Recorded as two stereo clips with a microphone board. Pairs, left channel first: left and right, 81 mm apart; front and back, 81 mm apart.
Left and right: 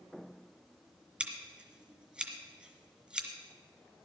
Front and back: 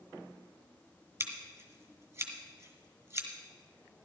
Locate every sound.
1.2 s scissors: 155° right, 2.0 m